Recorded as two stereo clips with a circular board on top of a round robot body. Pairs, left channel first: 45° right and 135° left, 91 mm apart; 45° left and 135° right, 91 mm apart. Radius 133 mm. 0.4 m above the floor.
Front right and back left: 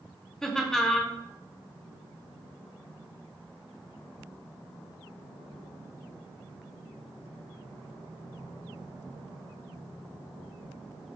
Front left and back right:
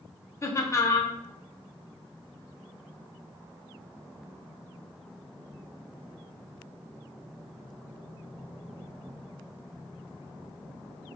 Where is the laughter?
35° left, 0.8 m.